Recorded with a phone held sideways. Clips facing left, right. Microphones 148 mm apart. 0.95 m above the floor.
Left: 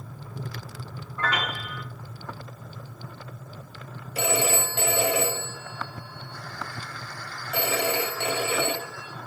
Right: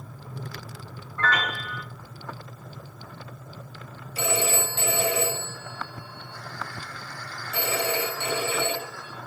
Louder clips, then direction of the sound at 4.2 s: Left 1 dB; 65° left (ahead or behind).